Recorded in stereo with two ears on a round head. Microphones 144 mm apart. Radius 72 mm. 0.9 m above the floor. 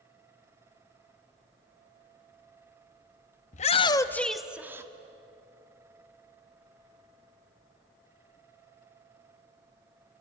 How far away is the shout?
About 1.1 m.